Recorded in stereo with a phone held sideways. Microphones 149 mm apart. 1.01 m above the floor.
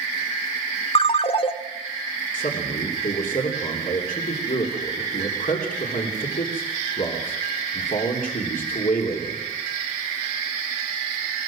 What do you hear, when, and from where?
0.9 s a ringtone: 40° left (ahead or behind), 1.1 m
2.3 s a man speaking: 70° left (ahead or behind), 3 m